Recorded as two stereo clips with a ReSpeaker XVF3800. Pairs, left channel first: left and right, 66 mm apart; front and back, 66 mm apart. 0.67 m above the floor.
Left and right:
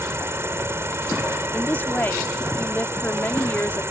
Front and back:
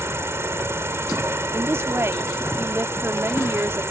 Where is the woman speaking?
140° left.